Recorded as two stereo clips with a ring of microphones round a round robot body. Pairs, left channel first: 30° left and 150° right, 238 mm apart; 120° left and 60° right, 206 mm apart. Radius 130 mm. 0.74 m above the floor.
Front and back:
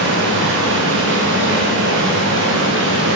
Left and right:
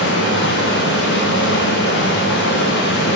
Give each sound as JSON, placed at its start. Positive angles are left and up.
{"t": 0.0, "sound": "running water", "azimuth_deg": 170, "distance_m": 9.0}